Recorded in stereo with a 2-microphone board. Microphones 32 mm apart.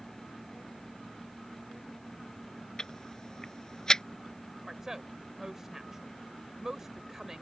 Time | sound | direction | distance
2.8 | ticking | 20° left (ahead or behind) | ?
4.6 | a woman speaking | 15° right (ahead or behind) | ?